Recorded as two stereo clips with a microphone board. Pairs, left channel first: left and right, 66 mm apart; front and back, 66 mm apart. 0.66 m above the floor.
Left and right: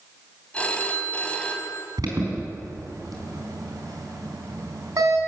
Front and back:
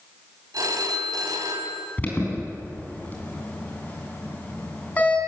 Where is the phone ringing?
160° left, 3 m.